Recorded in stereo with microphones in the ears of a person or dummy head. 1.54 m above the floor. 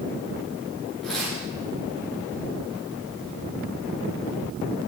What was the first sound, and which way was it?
Tearing paper, 5° left (ahead or behind).